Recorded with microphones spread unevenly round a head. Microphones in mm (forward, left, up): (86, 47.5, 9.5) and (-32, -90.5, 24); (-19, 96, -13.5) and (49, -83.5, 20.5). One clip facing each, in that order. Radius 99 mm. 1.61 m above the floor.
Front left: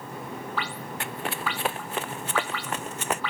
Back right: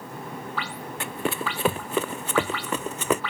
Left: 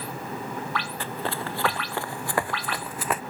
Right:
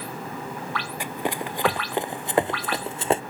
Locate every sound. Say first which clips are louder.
1.0 s running footsteps: back right 5 dB, right 5 dB; 145° right; by 3.2 s 130° right